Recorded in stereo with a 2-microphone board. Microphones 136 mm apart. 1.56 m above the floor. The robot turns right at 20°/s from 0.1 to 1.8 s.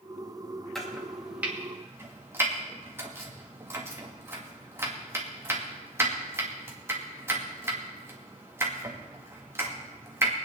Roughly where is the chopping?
Centre.